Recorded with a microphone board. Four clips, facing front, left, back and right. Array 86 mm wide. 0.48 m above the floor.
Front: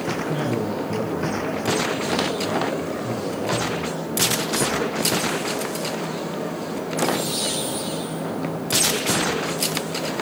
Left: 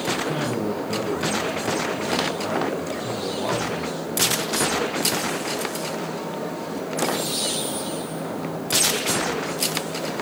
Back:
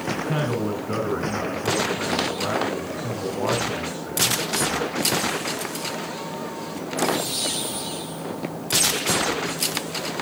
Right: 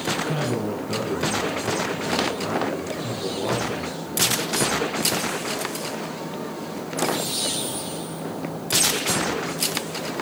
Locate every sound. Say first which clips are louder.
0.1 s a man speaking: right 1 dB, back 1 dB; 175° left, 5.5 m